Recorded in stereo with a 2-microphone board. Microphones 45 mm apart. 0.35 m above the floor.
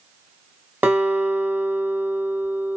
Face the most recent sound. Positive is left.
turn(degrees=-35)  # may be behind; listen again after turning